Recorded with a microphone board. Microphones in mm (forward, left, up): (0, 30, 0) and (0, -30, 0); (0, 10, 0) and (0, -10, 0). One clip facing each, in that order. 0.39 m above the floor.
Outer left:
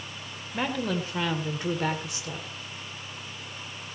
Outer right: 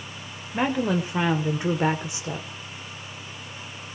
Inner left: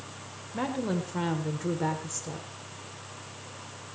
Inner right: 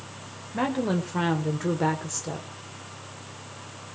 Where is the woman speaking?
20° right (ahead or behind), 1.8 m.